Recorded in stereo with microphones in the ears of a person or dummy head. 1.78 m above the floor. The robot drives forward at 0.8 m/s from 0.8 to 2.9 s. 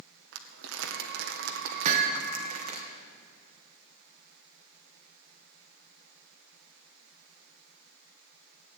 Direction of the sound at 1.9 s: 50° right (ahead or behind).